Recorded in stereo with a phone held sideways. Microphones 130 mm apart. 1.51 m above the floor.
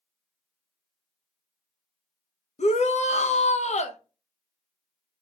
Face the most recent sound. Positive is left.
turn(degrees=60)  # may be behind; listen again after turning